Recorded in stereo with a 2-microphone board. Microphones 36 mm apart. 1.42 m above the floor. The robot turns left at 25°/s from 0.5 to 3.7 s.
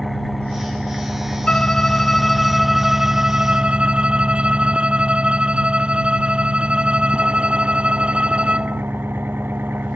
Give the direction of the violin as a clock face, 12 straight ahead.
11 o'clock.